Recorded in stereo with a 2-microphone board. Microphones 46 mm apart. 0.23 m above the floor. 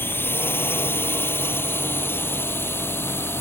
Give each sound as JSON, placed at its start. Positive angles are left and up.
{"t": 0.0, "sound": "a drone", "side_deg": 55}